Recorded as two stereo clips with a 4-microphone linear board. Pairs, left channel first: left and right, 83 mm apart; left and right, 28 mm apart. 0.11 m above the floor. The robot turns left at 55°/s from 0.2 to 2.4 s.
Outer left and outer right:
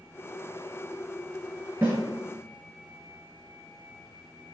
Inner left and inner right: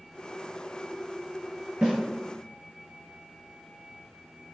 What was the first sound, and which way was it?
A snare drum, 30° right (ahead or behind).